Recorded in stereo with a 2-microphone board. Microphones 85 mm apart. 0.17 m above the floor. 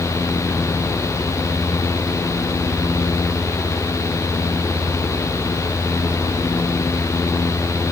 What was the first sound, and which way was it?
Only background noise.